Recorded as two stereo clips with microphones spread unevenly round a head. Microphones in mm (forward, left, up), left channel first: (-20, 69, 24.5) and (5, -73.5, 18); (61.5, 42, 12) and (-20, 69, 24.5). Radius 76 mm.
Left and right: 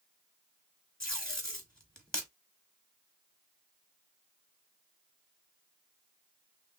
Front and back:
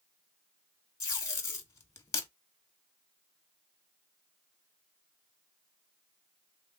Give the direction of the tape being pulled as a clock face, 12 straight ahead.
11 o'clock.